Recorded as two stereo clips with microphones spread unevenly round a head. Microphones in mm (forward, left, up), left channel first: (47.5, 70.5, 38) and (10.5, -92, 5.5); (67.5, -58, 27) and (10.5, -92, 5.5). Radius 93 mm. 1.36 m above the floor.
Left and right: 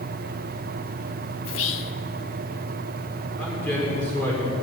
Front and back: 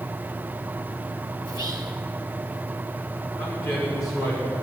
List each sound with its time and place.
1.4 s whispering: 80° left, 0.8 m
3.4 s a man speaking: straight ahead, 5 m